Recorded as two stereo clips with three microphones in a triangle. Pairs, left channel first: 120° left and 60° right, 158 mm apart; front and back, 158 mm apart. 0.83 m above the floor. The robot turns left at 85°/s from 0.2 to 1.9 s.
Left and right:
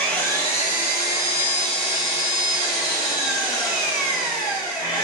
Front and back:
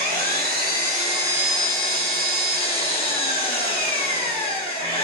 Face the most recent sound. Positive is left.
turn(degrees=55)